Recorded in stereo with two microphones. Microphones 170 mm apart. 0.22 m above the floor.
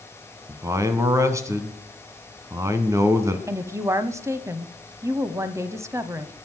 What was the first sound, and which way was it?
A man speaking, 20° right (ahead or behind).